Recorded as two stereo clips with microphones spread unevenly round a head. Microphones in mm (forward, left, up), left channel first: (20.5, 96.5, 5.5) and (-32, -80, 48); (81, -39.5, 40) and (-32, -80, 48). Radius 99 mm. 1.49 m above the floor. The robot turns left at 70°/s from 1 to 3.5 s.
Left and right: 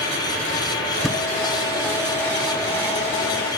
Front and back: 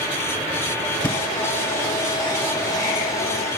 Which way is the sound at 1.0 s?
45° right.